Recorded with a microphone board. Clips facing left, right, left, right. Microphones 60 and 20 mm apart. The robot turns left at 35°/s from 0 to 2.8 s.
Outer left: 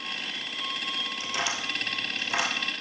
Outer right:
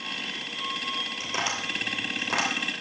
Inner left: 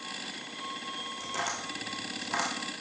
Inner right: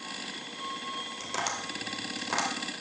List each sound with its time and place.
1.2 s tapping: 25° right (ahead or behind), 2.5 m; by 2.5 s 70° right (ahead or behind), 2.5 m